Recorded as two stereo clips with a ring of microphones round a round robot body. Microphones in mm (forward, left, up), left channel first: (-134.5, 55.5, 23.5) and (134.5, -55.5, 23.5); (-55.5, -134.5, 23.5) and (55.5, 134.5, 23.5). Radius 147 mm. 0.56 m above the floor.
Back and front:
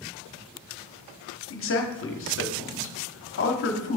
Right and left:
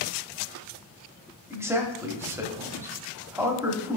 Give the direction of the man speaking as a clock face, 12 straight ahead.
7 o'clock.